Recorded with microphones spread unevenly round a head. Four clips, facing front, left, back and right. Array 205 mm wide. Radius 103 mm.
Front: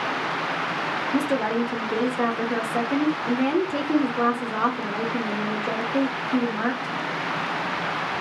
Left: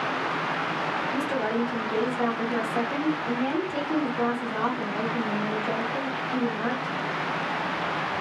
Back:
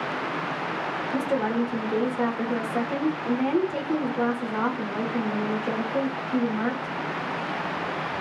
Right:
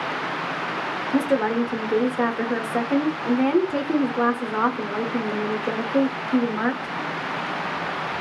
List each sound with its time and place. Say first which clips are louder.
1.1 s a woman speaking: right 9 dB, front 2 dB; 60° right, 0.8 m